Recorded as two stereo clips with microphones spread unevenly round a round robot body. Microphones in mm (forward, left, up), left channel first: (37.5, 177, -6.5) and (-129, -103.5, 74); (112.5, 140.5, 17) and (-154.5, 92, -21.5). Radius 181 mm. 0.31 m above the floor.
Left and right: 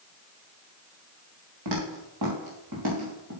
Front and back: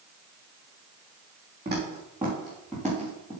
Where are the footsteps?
90° right, 4 m; by 3.3 s 70° right, 4.5 m.